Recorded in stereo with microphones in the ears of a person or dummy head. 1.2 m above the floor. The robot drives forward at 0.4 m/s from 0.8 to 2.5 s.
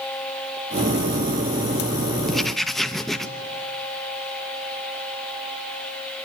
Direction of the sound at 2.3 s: Centre (ahead or behind).